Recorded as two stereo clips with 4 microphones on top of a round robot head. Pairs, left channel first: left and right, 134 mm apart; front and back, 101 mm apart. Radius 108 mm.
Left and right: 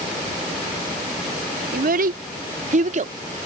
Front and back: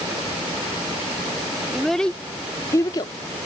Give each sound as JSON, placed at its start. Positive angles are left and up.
{"t": 1.7, "sound": "a child speaking", "azimuth_deg": -90}